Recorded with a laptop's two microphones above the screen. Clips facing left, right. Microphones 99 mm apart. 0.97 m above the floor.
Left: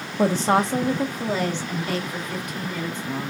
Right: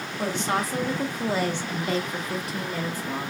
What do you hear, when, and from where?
0.2 s a woman speaking: 45° left (ahead or behind), 0.7 m; by 3.3 s 40° right (ahead or behind), 1.5 m